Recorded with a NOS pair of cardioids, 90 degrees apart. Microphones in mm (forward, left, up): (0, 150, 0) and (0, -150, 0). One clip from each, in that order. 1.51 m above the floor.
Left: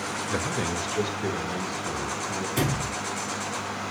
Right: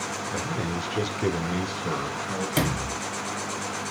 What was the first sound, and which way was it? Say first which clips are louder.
A man speaking: left 2 dB; 30° left.